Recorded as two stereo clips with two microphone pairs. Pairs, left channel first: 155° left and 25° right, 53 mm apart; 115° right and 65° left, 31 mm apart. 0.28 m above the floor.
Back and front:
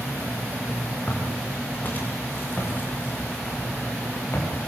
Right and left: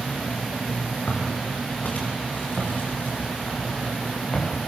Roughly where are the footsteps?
Behind right.